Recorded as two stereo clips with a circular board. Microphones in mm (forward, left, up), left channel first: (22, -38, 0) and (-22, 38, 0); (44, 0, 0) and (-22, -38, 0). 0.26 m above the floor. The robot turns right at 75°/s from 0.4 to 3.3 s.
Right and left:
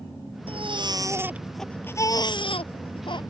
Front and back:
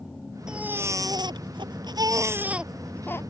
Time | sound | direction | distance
0.5 | a baby crying | 130° left | ?